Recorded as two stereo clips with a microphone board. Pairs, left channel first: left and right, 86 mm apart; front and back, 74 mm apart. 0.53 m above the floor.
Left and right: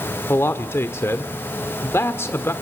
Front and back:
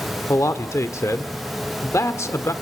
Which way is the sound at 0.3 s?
35° left.